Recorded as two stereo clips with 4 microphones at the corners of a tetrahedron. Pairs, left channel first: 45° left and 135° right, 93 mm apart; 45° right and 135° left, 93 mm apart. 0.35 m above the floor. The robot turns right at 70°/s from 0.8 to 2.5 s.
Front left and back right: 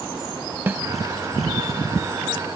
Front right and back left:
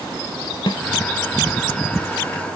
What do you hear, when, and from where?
0.7 s a snare drum: 70° right, 0.6 m